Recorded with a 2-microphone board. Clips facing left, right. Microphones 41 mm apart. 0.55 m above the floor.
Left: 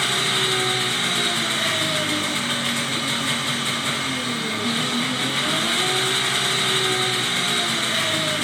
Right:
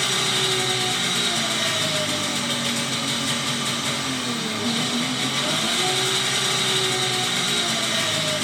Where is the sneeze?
No sneeze in this recording.